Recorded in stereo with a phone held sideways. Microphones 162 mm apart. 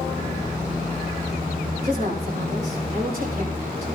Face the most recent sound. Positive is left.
turn(degrees=-65)  # may be behind; listen again after turning